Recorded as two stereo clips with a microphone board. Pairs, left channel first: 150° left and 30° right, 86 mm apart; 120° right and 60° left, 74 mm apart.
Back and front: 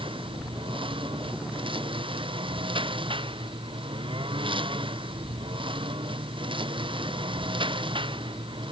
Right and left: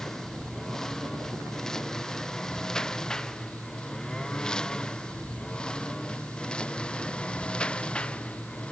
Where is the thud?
No thud in this recording.